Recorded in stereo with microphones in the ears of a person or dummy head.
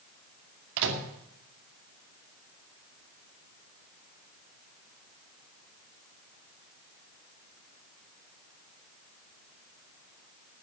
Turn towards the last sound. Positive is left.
turn(degrees=-65)  # may be behind; listen again after turning